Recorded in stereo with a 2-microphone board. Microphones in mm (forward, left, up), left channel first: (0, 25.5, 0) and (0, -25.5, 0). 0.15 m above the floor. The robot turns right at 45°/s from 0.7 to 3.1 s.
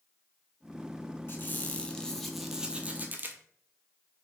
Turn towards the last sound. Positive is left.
turn(degrees=-145)